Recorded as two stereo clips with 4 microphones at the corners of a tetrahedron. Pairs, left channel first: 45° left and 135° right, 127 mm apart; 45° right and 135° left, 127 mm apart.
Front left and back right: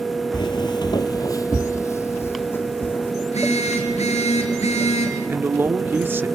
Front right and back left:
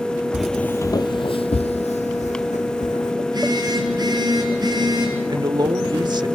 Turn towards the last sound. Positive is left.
turn(degrees=160)